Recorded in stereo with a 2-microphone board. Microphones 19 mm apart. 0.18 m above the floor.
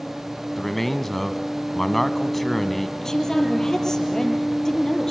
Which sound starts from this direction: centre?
A man speaking, at 0.6 s.